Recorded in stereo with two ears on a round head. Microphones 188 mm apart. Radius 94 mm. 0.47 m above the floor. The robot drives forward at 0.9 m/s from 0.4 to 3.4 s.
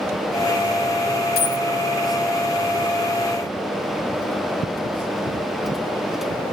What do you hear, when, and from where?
1.4 s a dropped coin: 45° left (ahead or behind), 1.0 m; by 1.6 s 35° left (ahead or behind), 1.2 m